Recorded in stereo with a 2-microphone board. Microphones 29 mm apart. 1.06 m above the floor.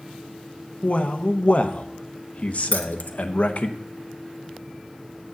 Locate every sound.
0.8 s a man speaking: 50° left (ahead or behind), 0.8 m
2.7 s keys jangling: 65° left (ahead or behind), 0.8 m